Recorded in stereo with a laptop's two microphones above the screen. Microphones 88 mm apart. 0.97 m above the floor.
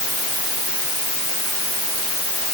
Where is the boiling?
No boiling in this recording.